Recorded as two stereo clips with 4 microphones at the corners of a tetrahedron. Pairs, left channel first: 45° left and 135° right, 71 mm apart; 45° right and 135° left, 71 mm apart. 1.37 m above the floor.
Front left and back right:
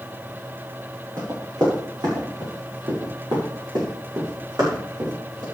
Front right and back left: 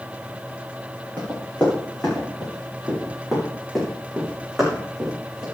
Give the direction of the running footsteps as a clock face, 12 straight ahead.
4 o'clock.